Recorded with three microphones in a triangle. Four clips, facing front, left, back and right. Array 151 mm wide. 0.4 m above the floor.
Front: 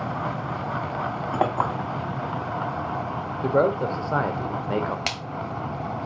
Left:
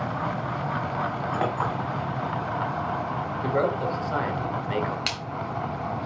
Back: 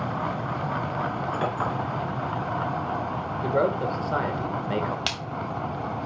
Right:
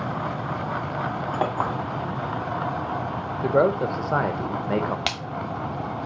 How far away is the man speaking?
About 1.1 m.